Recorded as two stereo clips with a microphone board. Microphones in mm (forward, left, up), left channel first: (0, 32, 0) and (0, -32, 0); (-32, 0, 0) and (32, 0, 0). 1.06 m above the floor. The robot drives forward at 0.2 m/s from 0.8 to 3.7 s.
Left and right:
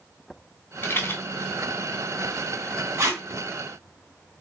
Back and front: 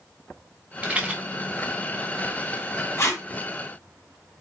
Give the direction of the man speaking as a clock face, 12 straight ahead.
No man speaking in this recording.